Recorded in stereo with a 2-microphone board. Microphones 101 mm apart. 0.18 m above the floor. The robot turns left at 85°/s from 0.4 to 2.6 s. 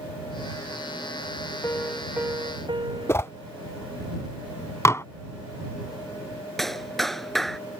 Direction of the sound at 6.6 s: Centre (ahead or behind).